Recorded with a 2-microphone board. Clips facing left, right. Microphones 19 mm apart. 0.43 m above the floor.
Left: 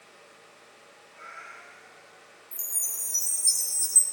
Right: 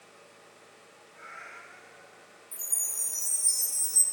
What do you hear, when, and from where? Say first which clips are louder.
1.1 s a cat meowing: left 1 dB; 45° left (ahead or behind), 7.5 m
2.5 s a chime: even; 65° left (ahead or behind), 1.6 m